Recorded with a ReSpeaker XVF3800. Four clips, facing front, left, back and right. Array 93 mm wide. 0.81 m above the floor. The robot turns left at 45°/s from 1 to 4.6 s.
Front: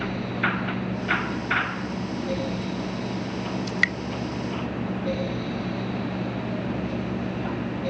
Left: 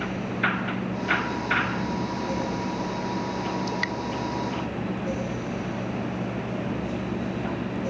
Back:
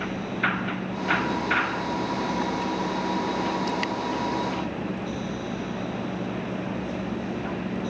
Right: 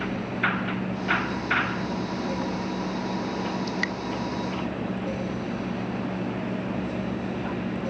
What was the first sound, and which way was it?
Dripping, 5° left.